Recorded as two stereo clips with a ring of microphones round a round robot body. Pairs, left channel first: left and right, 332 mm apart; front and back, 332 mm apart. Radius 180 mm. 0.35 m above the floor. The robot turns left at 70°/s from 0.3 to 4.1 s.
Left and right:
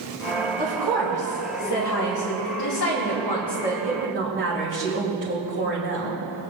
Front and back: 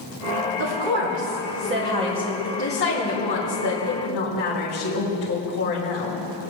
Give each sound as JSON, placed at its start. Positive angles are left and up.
{"t": 0.6, "sound": "a woman speaking", "azimuth_deg": -155, "distance_m": 2.5}